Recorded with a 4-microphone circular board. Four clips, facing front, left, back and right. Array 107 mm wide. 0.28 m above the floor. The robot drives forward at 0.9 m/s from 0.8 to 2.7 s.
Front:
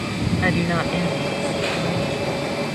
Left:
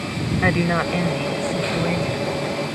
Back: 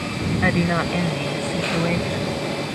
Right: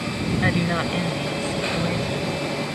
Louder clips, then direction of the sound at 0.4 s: Left 4 dB, back 2 dB; 105° left.